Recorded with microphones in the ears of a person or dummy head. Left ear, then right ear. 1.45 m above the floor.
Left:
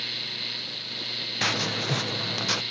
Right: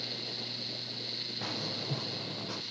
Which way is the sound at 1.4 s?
65° left (ahead or behind).